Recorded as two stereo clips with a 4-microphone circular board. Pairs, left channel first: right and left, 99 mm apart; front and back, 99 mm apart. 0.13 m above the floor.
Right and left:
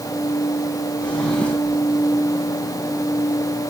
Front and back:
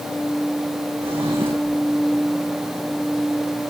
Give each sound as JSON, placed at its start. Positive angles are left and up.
{"t": 1.0, "sound": "a drawer", "azimuth_deg": -170, "distance_m": 3.0}